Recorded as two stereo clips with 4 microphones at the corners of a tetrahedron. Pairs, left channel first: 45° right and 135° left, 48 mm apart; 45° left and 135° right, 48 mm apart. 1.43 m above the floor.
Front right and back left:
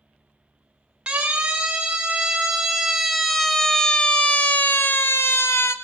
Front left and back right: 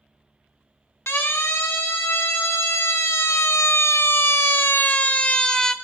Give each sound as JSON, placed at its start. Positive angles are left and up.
{"t": 1.1, "sound": "a siren", "azimuth_deg": 70, "distance_m": 3.5}